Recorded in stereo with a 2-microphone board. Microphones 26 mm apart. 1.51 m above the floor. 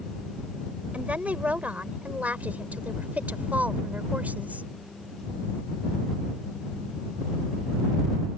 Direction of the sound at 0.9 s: 65° right (ahead or behind).